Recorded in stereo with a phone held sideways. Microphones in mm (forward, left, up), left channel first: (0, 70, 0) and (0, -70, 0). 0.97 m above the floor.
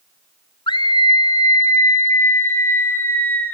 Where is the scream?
35° left (ahead or behind), 0.9 m; by 3.5 s 15° left (ahead or behind), 3.5 m.